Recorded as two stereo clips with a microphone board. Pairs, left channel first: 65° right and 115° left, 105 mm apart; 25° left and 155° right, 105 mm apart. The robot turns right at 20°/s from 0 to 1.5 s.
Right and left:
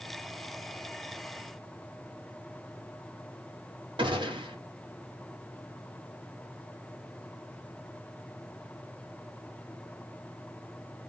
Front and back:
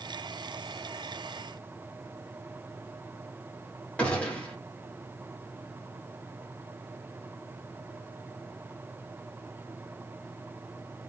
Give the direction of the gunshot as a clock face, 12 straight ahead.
9 o'clock.